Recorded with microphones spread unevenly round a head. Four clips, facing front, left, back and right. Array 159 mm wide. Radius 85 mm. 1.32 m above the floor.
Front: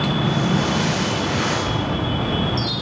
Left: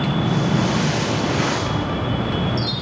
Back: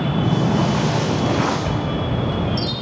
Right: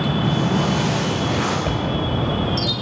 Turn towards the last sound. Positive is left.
turn(degrees=-125)